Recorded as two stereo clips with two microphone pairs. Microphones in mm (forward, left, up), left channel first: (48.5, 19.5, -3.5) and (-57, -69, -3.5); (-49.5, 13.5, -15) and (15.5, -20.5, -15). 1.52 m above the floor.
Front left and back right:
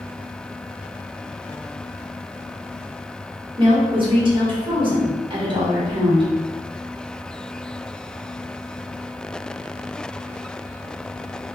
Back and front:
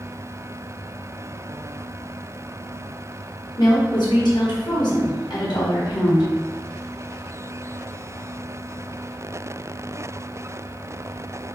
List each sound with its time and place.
3.6 s a woman speaking: 170° left, 1.5 m